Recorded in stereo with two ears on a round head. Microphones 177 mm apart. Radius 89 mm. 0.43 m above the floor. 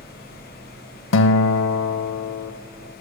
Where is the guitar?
70° left (ahead or behind), 0.5 m.